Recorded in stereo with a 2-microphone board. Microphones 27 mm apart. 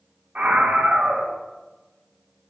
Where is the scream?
75° right (ahead or behind), 1.9 m.